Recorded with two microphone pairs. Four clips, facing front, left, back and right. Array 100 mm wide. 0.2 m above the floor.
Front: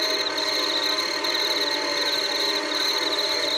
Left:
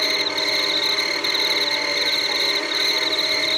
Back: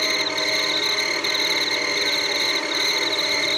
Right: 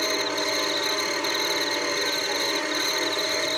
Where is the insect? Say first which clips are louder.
Left 1 dB, back 2 dB; 150° left.